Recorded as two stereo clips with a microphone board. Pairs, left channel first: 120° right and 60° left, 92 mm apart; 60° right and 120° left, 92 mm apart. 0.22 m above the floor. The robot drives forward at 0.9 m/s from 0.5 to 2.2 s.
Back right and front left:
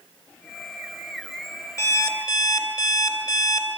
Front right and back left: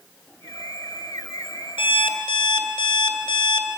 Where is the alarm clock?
70° right, 2 m; by 3.7 s 80° right, 2.0 m.